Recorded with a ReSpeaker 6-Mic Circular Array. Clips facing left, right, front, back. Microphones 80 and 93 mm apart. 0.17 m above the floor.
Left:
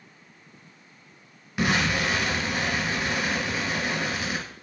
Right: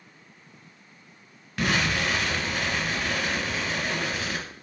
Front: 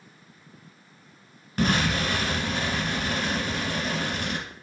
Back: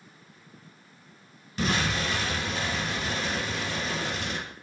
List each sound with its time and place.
1.6 s an explosion: 15° left, 2 m